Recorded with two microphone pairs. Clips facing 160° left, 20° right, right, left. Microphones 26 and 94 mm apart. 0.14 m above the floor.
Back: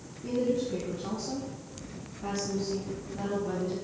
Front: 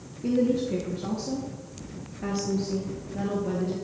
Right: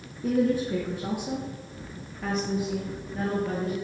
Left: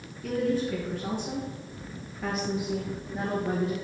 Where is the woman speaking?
35° right, 2 m; by 3.8 s 20° left, 2.5 m.